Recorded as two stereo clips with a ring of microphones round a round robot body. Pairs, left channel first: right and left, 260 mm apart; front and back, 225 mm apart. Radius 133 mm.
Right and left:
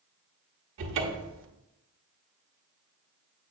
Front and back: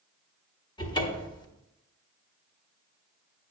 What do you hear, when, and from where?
0.8 s a cupboard door: 65° left, 1.2 m